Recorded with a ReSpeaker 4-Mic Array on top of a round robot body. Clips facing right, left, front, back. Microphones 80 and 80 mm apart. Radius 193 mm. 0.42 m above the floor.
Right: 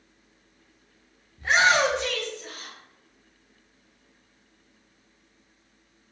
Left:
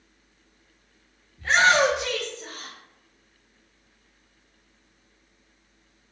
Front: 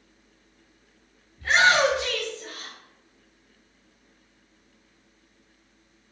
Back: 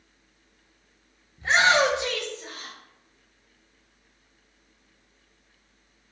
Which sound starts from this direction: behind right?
A shout, at 1.4 s.